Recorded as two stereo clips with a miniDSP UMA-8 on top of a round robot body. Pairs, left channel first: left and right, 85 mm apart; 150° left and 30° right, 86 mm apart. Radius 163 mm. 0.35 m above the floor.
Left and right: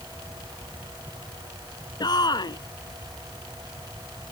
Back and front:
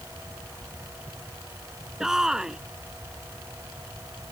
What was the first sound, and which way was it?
A shout, 50° left.